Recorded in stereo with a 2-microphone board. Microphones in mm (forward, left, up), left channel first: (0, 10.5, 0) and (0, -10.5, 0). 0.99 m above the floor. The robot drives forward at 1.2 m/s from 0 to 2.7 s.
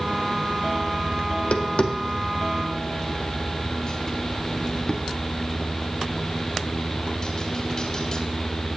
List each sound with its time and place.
1.3 s tapping: 85° left, 1.1 m; by 8.2 s 35° left (ahead or behind), 1.9 m